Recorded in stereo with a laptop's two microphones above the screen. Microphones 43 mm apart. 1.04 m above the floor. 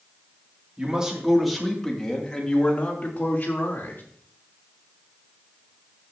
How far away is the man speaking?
About 2.5 m.